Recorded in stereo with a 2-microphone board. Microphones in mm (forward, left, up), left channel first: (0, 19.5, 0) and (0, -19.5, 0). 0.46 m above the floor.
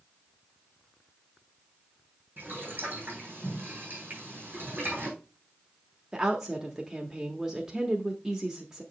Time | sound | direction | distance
2.4 | boiling | 55° right (ahead or behind) | 3.5 m
4.1 | a finger snap | 40° right (ahead or behind) | 4 m
6.1 | a woman speaking | 20° right (ahead or behind) | 0.9 m